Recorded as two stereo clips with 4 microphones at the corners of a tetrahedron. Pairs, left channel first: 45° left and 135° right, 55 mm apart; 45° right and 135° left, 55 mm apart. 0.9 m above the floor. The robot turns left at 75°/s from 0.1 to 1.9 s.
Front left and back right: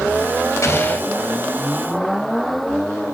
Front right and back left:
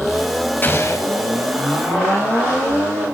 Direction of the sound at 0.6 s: 10° left.